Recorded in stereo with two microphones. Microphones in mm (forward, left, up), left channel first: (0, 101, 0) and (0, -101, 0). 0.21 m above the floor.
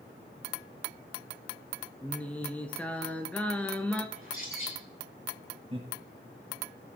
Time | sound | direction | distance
2.0 | singing | 5° left (ahead or behind) | 1.0 m
4.2 | a bird | 80° left | 5.5 m
5.7 | laughter | 30° right (ahead or behind) | 3 m